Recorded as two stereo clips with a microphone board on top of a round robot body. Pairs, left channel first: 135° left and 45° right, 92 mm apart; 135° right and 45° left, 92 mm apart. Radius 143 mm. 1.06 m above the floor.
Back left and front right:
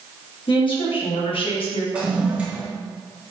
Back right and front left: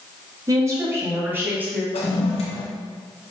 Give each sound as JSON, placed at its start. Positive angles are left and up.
{"t": 0.5, "sound": "a woman speaking", "azimuth_deg": 105, "distance_m": 2.5}
{"t": 1.9, "sound": "a toilet flushing", "azimuth_deg": -125, "distance_m": 0.7}